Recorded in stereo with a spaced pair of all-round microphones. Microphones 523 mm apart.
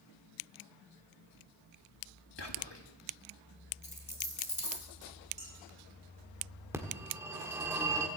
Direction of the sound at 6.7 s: 5° right (ahead or behind).